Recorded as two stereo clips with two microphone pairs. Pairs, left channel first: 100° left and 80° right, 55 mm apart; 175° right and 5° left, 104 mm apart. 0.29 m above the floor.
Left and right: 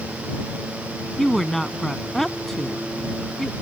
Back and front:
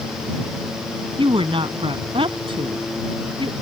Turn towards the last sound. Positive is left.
turn(degrees=15)